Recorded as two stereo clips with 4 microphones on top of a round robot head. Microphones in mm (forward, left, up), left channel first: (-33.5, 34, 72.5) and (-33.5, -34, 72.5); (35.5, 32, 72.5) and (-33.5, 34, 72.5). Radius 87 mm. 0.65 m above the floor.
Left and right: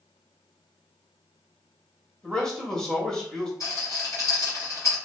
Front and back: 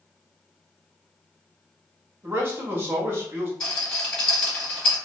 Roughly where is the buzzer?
No buzzer in this recording.